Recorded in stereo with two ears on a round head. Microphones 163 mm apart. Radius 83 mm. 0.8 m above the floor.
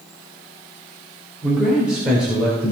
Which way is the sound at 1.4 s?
5° right (ahead or behind).